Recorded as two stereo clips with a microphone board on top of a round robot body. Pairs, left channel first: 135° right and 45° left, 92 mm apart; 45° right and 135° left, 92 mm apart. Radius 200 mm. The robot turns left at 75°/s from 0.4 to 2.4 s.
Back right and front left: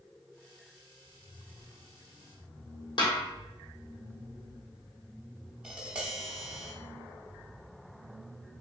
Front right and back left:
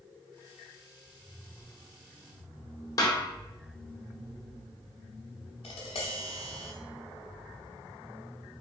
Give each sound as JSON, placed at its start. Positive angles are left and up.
{"t": 3.0, "sound": "a snare drum", "azimuth_deg": -100, "distance_m": 1.0}
{"t": 5.6, "sound": "tapping", "azimuth_deg": -35, "distance_m": 0.7}